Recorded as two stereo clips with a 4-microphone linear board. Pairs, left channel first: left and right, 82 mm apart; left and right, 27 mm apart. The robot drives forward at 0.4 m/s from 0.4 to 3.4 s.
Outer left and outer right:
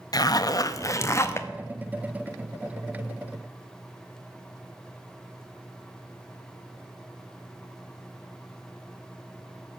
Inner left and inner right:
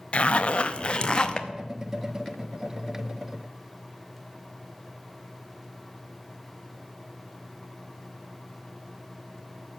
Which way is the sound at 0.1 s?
50° left (ahead or behind).